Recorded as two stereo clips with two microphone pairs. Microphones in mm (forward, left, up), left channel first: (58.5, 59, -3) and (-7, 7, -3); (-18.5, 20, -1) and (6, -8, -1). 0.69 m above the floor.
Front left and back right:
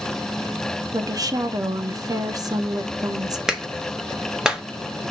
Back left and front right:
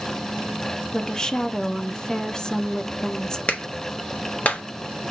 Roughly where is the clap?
Behind left.